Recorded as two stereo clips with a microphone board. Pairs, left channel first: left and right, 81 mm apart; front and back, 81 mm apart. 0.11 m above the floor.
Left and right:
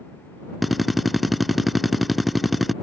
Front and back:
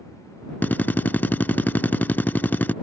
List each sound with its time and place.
0.6 s a drill: straight ahead